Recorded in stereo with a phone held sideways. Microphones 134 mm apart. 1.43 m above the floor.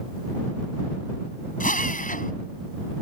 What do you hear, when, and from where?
1.6 s a drill: 80° left